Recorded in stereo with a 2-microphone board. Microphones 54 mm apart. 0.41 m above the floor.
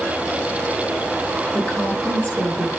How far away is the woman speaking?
About 7.5 m.